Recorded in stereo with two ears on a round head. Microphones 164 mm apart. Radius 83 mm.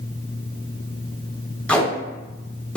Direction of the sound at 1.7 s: 5° left (ahead or behind).